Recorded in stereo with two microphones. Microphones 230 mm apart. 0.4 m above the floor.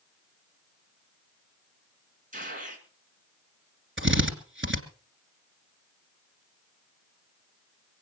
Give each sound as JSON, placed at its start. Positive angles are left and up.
{"t": 2.3, "sound": "a gunshot", "side_deg": -35, "distance_m": 3.0}
{"t": 4.0, "sound": "a drill", "side_deg": -60, "distance_m": 2.0}